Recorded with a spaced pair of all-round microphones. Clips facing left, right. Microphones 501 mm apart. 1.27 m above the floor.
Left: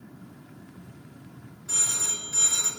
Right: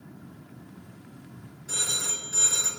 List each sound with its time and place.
1.7 s a phone ringing: 20° left (ahead or behind), 4 m